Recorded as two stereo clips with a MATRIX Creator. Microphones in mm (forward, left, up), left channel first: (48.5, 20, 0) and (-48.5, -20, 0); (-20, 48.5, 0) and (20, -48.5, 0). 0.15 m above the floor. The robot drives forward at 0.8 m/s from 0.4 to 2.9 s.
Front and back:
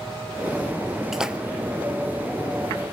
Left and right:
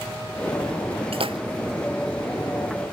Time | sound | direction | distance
1.1 | a splash | 70° right | 1.4 m